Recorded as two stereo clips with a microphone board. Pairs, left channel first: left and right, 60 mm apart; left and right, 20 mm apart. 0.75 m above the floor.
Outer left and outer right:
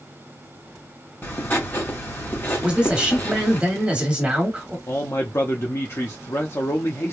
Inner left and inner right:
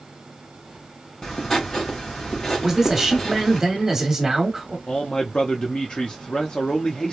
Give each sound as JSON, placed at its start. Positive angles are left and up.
{"t": 1.2, "sound": "writing", "side_deg": 35, "distance_m": 1.6}
{"t": 2.6, "sound": "a man speaking", "side_deg": -15, "distance_m": 1.3}
{"t": 4.9, "sound": "a man speaking", "side_deg": 45, "distance_m": 0.7}